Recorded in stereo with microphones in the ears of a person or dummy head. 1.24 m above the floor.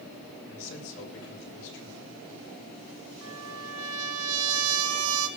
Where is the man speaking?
75° left (ahead or behind), 3.5 m.